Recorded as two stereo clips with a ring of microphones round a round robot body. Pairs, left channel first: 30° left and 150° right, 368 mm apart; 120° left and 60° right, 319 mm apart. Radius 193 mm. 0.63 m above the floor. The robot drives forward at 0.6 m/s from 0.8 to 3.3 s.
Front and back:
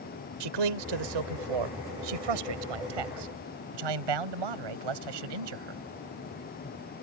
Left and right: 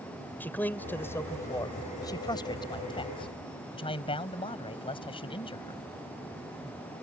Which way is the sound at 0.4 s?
155° right.